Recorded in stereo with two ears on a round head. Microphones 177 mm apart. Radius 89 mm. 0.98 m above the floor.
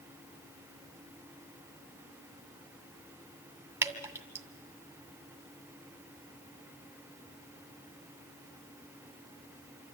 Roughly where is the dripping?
Centre.